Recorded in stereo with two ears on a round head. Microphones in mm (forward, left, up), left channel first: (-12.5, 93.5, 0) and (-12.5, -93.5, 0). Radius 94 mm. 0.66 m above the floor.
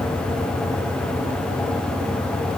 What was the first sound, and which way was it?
Only background noise.